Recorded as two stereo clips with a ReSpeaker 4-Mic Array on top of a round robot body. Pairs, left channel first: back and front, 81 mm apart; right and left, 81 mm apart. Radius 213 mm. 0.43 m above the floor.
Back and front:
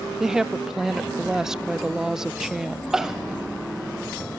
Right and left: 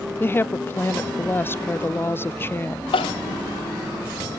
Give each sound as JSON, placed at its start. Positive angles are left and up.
{"t": 0.2, "sound": "a woman speaking", "azimuth_deg": -75, "distance_m": 0.7}
{"t": 2.9, "sound": "crying", "azimuth_deg": -85, "distance_m": 0.5}